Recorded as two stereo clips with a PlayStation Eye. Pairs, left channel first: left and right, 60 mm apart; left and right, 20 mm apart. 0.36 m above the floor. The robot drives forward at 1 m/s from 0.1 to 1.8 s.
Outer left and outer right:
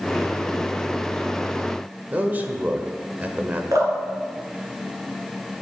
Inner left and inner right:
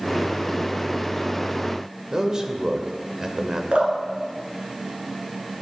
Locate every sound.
2.1 s a man speaking: 30° right (ahead or behind), 1.1 m
3.7 s dripping: 80° right, 2.5 m